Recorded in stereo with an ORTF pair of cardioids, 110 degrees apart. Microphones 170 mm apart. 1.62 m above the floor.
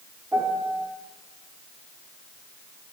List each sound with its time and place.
0.3 s a piano: 10° right, 5 m